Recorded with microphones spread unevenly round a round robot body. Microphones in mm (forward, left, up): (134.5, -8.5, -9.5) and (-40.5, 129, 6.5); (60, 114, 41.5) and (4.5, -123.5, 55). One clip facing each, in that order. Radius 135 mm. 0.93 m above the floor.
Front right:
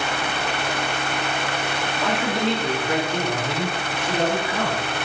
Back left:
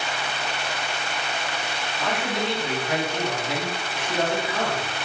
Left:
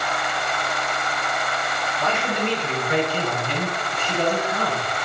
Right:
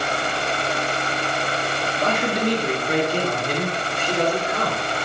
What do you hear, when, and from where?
2.0 s a man speaking: 45° right, 1.7 m; by 5.1 s 60° right, 4 m